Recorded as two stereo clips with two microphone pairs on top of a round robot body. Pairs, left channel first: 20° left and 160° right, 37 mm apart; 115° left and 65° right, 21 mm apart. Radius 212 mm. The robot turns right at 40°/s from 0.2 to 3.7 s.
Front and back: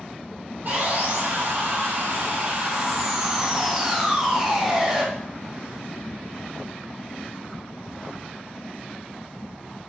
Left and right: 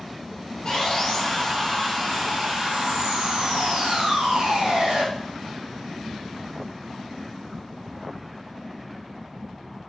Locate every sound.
0.7 s sawing: 170° left, 5.5 m; by 5.0 s 70° right, 5.5 m